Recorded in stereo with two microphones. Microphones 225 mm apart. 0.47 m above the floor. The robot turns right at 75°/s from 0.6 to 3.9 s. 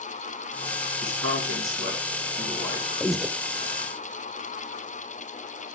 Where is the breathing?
5° left (ahead or behind), 0.8 m; by 3.3 s 10° right (ahead or behind), 0.8 m.